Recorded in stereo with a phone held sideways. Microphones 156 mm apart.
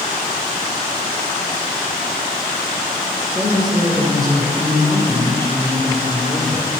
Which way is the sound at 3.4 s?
5° right (ahead or behind).